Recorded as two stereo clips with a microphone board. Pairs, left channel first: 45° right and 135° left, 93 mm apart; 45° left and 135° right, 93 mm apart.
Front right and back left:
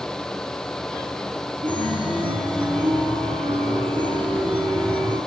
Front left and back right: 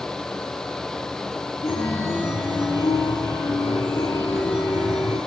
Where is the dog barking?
No dog barking in this recording.